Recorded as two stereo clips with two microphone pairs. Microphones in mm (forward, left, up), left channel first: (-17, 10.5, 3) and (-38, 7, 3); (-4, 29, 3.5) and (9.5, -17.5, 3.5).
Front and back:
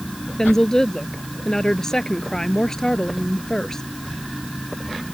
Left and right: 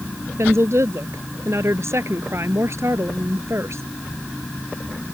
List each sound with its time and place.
0.4 s a woman speaking: 55° right